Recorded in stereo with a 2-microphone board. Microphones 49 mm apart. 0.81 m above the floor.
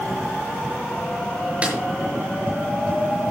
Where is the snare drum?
25° right (ahead or behind), 6 m.